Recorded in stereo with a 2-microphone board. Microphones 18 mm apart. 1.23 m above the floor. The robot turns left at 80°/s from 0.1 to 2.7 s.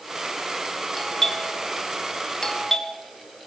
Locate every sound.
1.0 s a doorbell: 15° left (ahead or behind), 1.5 m